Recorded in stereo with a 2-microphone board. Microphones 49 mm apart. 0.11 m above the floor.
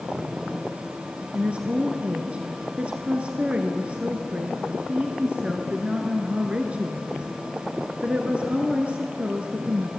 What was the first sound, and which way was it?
A woman speaking, 25° right (ahead or behind).